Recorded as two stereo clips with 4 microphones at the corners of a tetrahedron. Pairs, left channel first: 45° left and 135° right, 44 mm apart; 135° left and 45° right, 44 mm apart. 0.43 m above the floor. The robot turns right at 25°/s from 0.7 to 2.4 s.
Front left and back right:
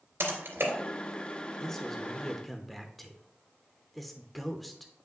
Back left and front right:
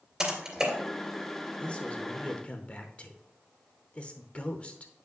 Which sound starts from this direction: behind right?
Typing on a keyboard, at 0.2 s.